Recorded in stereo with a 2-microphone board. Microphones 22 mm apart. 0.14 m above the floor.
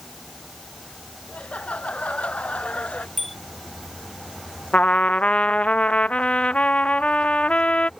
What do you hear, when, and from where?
1.3 s laughter: 85° left; by 3.1 s 75° left (ahead or behind)
3.2 s a bicycle bell: centre (ahead or behind)
4.7 s a trumpet: 70° left (ahead or behind)